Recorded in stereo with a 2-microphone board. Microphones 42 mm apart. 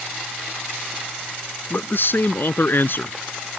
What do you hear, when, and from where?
1.7 s a man speaking: 60° left (ahead or behind)